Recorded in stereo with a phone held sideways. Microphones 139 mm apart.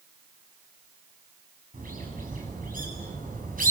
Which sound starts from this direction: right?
A bird, at 1.7 s.